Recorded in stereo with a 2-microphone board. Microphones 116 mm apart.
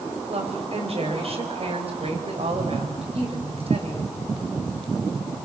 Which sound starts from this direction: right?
A woman speaking, at 0.3 s.